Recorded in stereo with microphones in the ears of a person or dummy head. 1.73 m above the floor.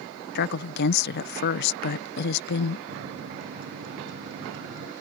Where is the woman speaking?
60° left (ahead or behind).